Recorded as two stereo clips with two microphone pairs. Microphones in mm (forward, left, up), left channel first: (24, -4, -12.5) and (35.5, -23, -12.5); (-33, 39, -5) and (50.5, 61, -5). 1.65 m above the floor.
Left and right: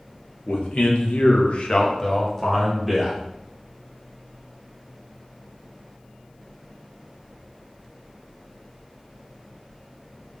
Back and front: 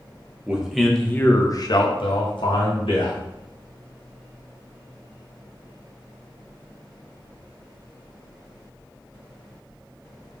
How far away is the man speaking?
About 1.2 m.